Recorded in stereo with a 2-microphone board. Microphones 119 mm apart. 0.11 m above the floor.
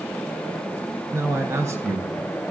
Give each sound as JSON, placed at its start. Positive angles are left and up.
{"t": 1.1, "sound": "a man speaking", "side_deg": -25, "distance_m": 1.2}